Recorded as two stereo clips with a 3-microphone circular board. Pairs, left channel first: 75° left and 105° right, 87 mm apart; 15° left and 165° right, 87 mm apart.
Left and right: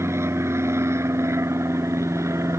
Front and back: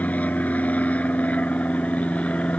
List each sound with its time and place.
0.0 s an aircraft: 55° right